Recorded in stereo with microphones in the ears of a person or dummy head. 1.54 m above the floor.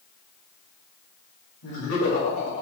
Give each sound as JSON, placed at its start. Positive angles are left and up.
{"t": 1.6, "sound": "laughter", "side_deg": 75, "distance_m": 3.0}